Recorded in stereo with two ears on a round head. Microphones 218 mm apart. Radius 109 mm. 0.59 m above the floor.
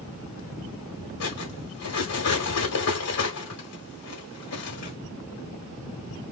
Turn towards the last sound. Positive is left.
turn(degrees=70)  # may be behind; listen again after turning